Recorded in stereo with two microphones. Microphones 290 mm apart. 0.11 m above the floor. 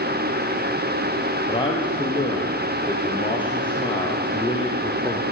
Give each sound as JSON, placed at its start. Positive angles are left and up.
{"t": 1.5, "sound": "a man speaking", "side_deg": 15, "distance_m": 3.5}